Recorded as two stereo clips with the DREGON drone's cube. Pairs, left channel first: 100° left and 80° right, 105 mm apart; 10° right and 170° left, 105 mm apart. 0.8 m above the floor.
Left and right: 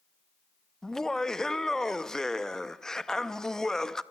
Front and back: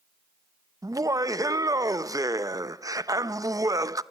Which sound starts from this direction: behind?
Laughter, at 0.8 s.